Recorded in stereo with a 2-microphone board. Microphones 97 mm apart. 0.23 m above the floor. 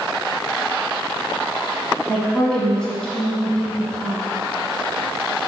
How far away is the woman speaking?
About 1.7 m.